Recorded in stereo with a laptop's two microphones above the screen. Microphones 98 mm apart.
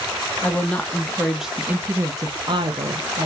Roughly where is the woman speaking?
Centre.